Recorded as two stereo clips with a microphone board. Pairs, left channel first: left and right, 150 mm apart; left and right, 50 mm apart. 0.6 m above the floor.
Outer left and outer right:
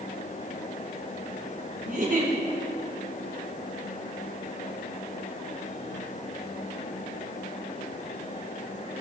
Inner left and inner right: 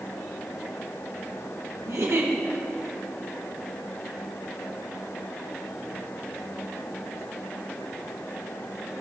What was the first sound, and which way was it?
A giggle, 65° right (ahead or behind).